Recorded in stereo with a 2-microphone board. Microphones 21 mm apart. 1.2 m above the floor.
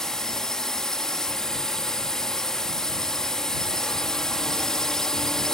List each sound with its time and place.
0.0 s a drone: 30° left (ahead or behind)